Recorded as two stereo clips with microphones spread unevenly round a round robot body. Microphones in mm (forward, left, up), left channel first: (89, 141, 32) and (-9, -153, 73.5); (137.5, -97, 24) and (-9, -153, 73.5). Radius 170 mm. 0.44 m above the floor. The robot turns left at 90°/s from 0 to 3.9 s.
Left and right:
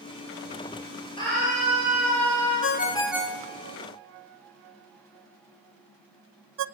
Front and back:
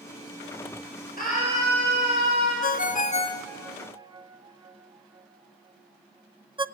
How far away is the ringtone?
About 0.8 m.